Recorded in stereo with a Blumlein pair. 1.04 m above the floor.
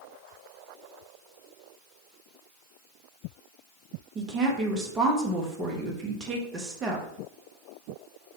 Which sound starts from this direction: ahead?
A woman speaking, at 4.2 s.